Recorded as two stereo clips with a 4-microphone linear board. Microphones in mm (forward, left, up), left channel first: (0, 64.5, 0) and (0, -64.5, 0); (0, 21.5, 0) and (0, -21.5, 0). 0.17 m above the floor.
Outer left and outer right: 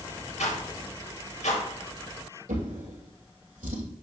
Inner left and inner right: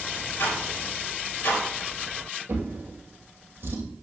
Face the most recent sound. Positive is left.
turn(degrees=-80)